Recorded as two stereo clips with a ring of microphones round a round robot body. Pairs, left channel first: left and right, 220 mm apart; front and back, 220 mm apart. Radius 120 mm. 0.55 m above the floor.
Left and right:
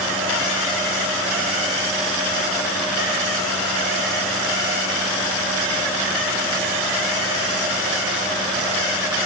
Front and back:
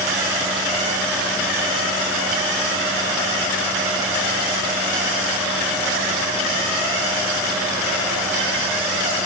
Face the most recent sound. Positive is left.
No sound to turn to.